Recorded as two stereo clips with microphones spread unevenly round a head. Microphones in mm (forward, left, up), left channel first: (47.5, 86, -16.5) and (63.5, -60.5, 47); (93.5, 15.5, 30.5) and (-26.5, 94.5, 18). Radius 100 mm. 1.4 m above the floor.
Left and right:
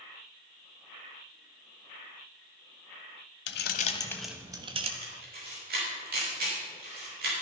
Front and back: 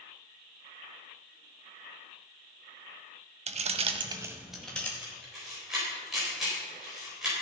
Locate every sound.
3.5 s keys jangling: 120° left, 0.8 m; by 4.9 s 110° right, 1.2 m
5.0 s a camera shutter: 125° right, 4.5 m